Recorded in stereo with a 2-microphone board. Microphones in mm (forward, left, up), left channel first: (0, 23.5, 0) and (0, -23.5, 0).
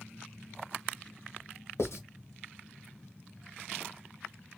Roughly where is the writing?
Left.